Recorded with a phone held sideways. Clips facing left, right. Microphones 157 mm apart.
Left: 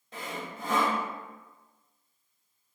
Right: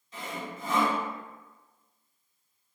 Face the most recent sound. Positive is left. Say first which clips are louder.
# even
turn(degrees=60)  # may be behind; listen again after turning